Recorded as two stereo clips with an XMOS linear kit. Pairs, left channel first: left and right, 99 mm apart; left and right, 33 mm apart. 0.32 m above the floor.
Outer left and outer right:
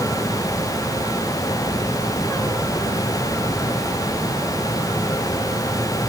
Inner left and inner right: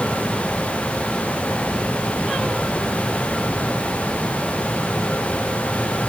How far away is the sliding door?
I don't hear a sliding door.